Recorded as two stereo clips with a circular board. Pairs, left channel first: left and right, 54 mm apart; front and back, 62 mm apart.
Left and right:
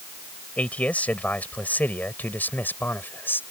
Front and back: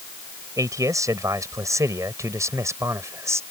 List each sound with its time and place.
0.6 s a man speaking: 155° left; by 3.4 s 140° left